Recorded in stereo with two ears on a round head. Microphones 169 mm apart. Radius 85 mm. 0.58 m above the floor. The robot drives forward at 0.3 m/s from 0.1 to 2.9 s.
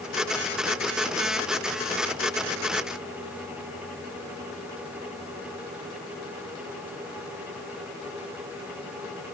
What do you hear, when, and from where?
Only background noise.